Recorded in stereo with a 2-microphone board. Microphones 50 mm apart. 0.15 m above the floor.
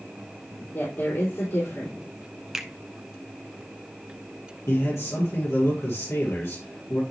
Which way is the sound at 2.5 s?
10° right (ahead or behind).